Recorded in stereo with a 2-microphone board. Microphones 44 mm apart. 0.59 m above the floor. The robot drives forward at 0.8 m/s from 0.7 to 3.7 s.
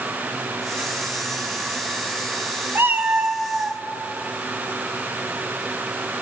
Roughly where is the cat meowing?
Right.